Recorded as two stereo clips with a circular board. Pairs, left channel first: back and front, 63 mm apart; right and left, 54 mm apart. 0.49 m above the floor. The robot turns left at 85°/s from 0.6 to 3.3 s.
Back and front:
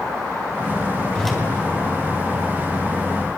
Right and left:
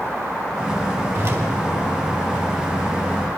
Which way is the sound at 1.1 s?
105° left.